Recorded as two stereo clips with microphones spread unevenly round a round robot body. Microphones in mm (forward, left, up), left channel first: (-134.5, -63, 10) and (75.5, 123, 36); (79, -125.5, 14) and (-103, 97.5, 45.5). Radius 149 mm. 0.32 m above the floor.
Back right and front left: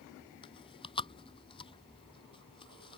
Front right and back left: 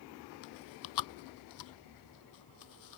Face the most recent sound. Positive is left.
turn(degrees=-65)